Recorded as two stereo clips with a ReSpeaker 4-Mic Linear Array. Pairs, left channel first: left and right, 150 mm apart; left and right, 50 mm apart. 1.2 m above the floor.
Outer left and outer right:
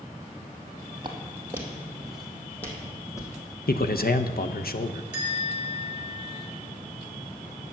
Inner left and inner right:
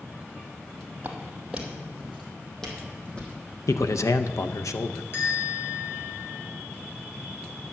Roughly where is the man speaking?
Left.